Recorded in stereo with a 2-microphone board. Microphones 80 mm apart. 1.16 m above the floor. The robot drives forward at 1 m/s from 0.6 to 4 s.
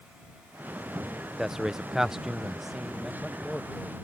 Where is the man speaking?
5° right (ahead or behind); by 4.0 s centre (ahead or behind).